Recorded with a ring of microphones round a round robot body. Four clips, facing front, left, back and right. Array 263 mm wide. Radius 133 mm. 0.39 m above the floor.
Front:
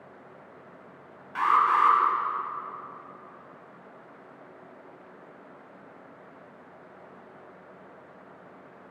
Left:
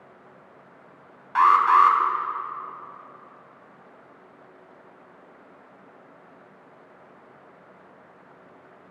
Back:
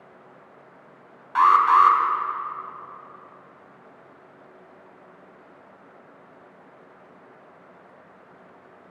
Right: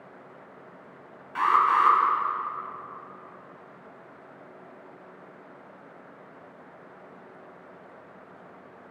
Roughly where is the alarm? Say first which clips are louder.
Left 5 dB, back 6 dB; behind left.